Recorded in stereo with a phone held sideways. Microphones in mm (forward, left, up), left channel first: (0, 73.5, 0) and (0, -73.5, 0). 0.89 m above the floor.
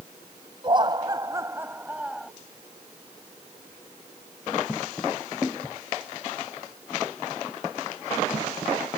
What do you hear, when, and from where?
0.6 s laughter: 35° right (ahead or behind); by 2.3 s 5° right (ahead or behind)